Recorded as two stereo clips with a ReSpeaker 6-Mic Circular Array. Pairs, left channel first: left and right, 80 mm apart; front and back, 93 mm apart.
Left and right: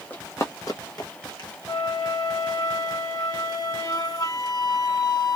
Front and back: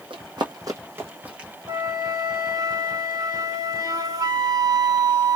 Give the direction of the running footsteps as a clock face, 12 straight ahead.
7 o'clock.